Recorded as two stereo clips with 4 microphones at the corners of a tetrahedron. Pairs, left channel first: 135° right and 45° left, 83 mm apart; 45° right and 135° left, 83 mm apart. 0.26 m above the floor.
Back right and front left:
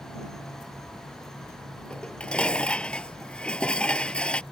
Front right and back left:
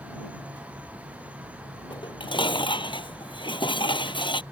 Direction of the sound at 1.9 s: 55° right.